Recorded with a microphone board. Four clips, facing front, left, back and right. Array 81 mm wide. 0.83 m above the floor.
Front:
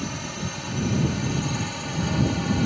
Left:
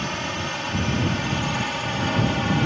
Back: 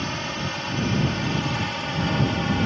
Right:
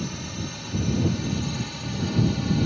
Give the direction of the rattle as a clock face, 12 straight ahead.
I don't hear a rattle.